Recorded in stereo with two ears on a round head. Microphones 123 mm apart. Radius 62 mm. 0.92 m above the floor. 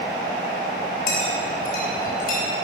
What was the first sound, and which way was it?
A clink, 70° left (ahead or behind).